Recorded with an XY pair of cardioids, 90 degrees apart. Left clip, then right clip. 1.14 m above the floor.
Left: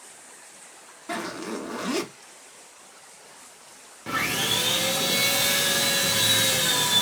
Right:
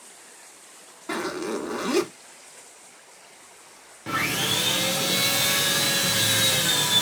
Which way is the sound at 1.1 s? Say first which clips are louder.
Right 3 dB; 35° right.